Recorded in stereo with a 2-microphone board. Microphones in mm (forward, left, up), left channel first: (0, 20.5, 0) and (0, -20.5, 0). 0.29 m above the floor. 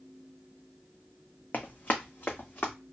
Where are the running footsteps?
45° left (ahead or behind), 0.9 m; by 2.7 s 40° left (ahead or behind), 1.5 m.